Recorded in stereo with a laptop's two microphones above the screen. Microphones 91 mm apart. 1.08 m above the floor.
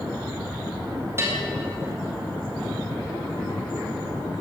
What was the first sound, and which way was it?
A bell, 25° right (ahead or behind).